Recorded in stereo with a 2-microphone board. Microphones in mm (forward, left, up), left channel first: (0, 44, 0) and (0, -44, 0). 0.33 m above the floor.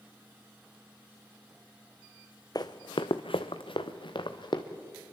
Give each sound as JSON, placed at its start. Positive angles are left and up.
{"t": 2.5, "sound": "running footsteps", "side_deg": 50, "distance_m": 1.1}